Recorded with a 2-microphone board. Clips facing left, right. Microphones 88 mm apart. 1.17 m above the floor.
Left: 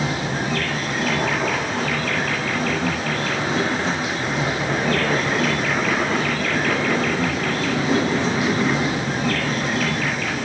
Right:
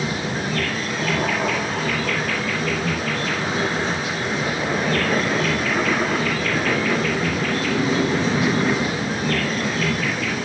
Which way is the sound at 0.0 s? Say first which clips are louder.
Left 1 dB; 70° left (ahead or behind).